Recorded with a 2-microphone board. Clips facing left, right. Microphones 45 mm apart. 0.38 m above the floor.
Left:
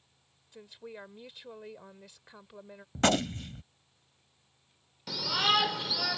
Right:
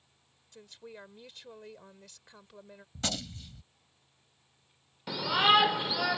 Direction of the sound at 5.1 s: 20° right (ahead or behind).